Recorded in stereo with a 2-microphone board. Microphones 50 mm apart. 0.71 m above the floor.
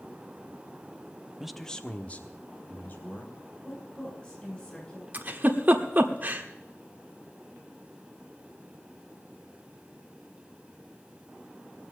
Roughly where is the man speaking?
Centre.